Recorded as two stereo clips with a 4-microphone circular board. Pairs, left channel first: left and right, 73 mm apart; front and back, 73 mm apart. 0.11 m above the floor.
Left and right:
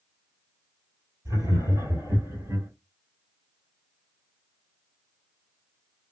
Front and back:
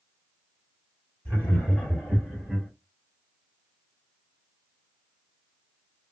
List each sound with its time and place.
1.2 s laughter: 65° right, 3 m; by 2.7 s 80° right, 2.5 m